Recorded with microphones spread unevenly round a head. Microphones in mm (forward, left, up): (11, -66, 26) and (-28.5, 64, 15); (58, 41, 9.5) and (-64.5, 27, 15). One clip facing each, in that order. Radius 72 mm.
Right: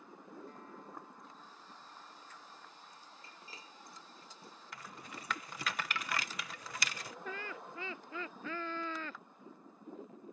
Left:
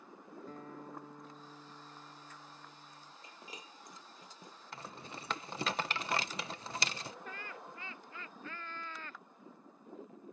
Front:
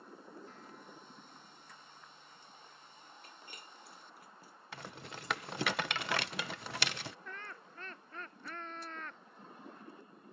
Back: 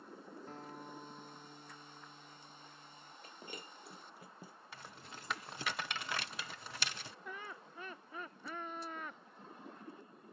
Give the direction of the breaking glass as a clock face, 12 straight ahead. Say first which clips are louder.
Left 5 dB, back 8 dB; 6 o'clock.